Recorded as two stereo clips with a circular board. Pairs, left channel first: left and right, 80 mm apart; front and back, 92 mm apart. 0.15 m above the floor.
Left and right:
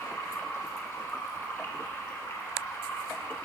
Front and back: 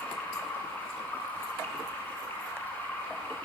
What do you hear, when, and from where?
0.0 s running water: 55° left, 1.1 m